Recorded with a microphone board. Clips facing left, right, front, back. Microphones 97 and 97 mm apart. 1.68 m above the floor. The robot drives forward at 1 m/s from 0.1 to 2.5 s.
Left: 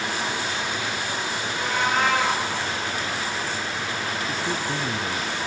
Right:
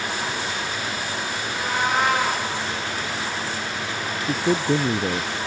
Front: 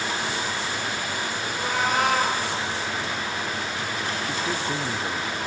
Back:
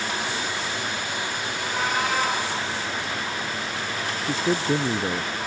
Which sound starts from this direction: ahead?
A cat meowing, at 1.5 s.